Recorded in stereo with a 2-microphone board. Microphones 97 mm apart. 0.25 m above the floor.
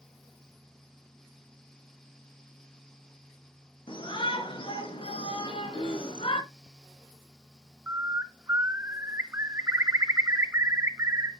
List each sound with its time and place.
3.9 s a shout: 60° left (ahead or behind), 4 m; by 6.4 s 65° left (ahead or behind), 3 m
5.4 s throat clearing: 70° left (ahead or behind), 5 m
7.9 s a bird: 25° right (ahead or behind), 0.9 m